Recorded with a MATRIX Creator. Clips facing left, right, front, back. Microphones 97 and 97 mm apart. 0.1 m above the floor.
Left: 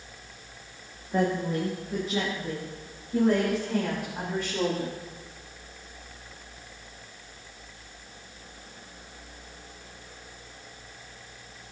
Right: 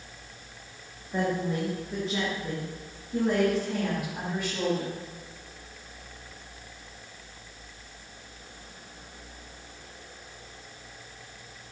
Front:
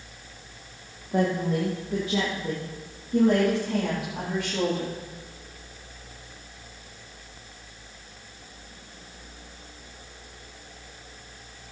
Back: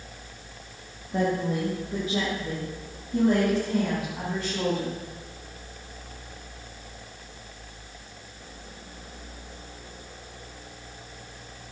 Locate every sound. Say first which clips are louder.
1.1 s a woman speaking: left 2 dB, front 1 dB; 5° left, 6.5 m; by 5.0 s straight ahead, 12 m